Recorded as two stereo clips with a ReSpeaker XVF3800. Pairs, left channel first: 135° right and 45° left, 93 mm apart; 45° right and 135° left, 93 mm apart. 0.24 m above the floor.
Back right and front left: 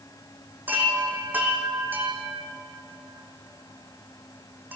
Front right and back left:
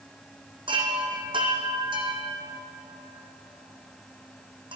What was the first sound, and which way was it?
A chime, 115° left.